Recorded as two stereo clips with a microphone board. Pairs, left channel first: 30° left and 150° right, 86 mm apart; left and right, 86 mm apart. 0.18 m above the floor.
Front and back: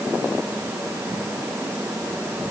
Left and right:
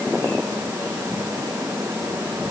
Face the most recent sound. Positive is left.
No sound to turn to.